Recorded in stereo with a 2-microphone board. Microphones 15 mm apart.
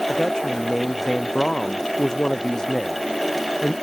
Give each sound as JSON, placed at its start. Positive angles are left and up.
{"t": 0.1, "sound": "a man speaking", "side_deg": 40}